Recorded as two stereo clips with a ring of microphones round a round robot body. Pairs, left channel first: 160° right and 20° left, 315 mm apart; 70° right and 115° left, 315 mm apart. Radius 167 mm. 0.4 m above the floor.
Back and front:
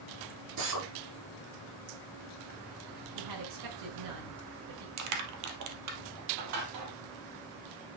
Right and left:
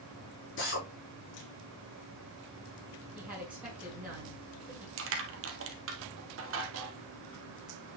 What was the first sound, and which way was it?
A drill, 10° right.